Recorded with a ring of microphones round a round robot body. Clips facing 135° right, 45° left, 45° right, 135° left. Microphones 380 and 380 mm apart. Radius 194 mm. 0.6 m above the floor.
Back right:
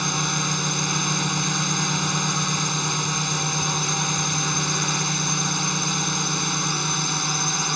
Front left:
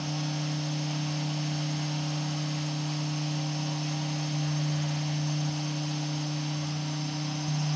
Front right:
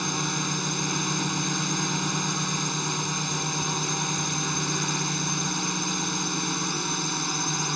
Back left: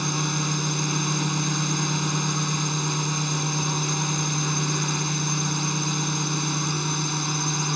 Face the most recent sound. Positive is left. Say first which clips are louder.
# back right 4 dB, back left 2 dB
turn(degrees=-130)